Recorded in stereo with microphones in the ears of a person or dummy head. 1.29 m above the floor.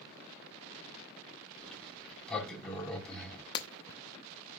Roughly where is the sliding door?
Centre.